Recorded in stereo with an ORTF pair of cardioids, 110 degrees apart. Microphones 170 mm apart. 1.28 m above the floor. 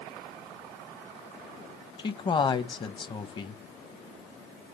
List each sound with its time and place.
2.0 s a man speaking: 30° left, 0.8 m